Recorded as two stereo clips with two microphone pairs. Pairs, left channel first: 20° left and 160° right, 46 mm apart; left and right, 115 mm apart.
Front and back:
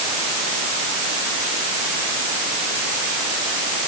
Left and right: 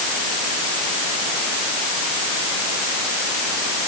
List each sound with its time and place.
Only background noise.